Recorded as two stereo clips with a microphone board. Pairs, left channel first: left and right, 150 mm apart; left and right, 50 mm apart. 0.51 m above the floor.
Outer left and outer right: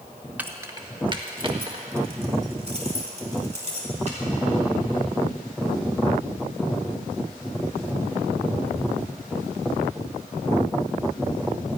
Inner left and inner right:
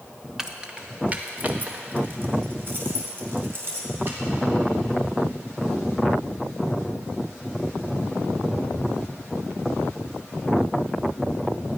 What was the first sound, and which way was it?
Keys jangling, 10° right (ahead or behind).